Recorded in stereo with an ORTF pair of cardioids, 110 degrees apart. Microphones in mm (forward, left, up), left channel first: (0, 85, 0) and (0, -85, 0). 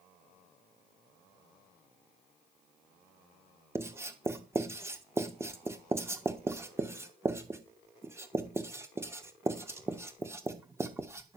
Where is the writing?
15° right, 1.8 m.